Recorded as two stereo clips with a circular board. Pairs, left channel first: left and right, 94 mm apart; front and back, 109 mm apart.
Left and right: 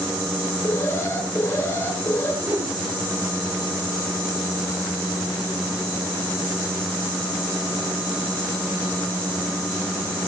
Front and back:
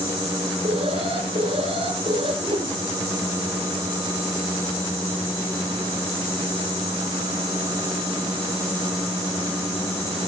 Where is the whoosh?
145° right, 5.5 m.